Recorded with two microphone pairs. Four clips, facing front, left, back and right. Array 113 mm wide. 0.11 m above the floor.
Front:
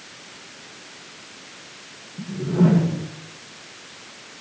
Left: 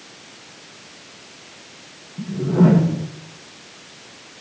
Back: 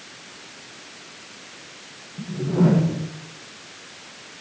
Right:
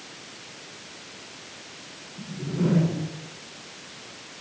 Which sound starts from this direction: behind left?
A whoosh, at 2.2 s.